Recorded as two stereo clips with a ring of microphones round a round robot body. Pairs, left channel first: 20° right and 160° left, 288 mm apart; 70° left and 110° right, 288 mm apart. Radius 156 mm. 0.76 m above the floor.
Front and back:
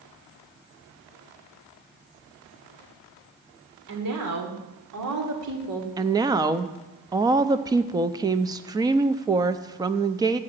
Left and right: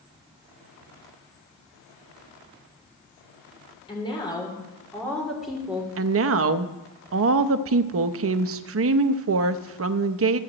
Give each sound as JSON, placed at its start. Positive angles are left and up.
{"t": 3.9, "sound": "a woman speaking", "azimuth_deg": 140, "distance_m": 3.0}
{"t": 6.0, "sound": "a woman speaking", "azimuth_deg": -130, "distance_m": 0.6}